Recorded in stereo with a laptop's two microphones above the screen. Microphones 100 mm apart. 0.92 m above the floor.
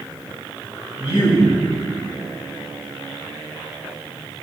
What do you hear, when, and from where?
1.0 s a man speaking: 20° right (ahead or behind), 4 m